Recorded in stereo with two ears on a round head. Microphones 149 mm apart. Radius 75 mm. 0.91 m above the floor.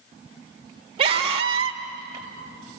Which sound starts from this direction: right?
A scream, at 1.0 s.